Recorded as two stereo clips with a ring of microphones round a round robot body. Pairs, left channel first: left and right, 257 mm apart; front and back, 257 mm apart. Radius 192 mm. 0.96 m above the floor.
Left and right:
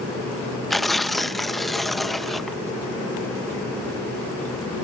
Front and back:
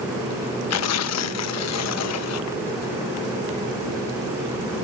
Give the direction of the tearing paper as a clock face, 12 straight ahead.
12 o'clock.